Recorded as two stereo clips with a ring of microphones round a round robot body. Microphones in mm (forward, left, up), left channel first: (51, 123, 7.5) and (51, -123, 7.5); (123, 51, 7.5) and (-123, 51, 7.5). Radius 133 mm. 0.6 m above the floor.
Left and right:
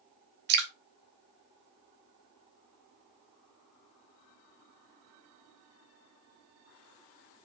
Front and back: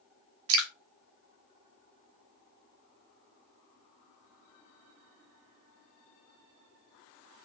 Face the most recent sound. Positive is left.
turn(degrees=-140)